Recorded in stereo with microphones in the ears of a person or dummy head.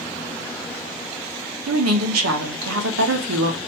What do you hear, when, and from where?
1.7 s a woman speaking: 80° right, 1.1 m